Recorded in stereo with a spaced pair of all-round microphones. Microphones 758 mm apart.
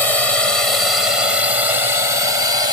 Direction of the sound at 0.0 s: 45° left (ahead or behind).